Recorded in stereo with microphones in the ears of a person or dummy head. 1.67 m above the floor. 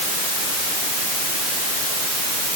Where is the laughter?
No laughter in this recording.